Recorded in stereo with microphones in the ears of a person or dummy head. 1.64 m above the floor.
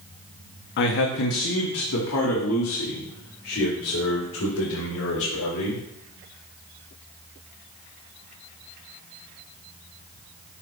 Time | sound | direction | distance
0.8 | a man speaking | 50° left (ahead or behind) | 0.9 m